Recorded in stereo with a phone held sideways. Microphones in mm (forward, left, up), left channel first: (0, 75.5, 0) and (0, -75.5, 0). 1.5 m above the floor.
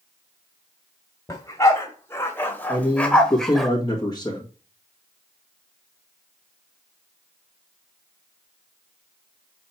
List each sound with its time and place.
1.3 s a dog barking: 25° left (ahead or behind), 1.6 m; by 3.7 s centre (ahead or behind), 1.2 m
2.7 s a man speaking: 25° left (ahead or behind), 1.8 m